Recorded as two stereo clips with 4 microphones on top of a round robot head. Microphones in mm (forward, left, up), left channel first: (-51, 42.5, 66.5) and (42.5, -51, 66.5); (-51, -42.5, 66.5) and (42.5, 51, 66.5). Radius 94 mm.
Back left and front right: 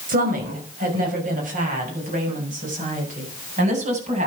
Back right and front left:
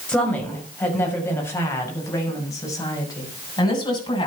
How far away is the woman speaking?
About 6.5 m.